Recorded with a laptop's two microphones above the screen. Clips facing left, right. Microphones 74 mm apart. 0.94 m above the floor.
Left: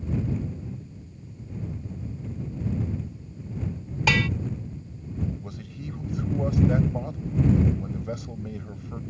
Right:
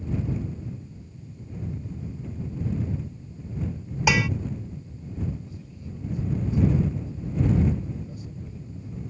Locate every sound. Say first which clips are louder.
4.1 s dishes clattering: right 1 dB; 10° right (ahead or behind)
5.4 s a man speaking: left 4 dB; 80° left